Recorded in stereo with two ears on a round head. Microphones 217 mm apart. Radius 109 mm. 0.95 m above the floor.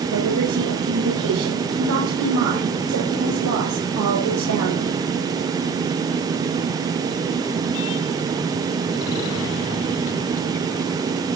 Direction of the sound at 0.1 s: 85° right.